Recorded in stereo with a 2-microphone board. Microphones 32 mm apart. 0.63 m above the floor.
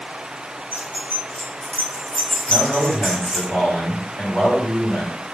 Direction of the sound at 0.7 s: 70° left (ahead or behind).